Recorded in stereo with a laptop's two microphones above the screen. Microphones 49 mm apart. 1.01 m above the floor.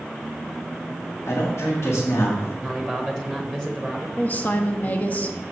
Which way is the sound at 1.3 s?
80° left.